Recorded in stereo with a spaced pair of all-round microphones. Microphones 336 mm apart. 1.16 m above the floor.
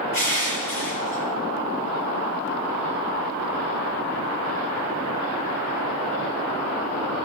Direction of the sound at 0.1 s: 85° left.